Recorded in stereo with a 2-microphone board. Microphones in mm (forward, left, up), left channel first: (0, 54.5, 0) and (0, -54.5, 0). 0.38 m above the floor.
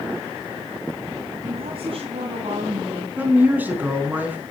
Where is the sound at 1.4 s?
55° right (ahead or behind), 2.5 m; by 3.1 s 65° right (ahead or behind), 4.5 m.